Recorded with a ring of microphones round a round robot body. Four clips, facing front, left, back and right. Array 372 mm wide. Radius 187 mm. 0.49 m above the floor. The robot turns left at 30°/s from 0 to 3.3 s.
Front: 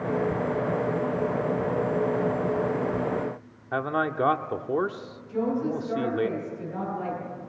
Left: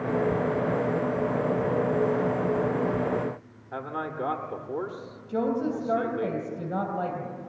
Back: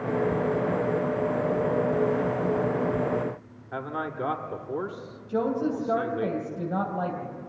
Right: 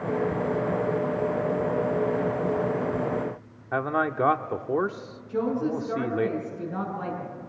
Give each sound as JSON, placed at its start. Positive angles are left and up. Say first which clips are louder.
{"t": 3.7, "sound": "a man speaking", "louder": "right 7 dB, front 6 dB", "azimuth_deg": -55, "distance_m": 1.3}
{"t": 5.3, "sound": "a woman speaking", "louder": "even, back 1 dB", "azimuth_deg": 135, "distance_m": 3.5}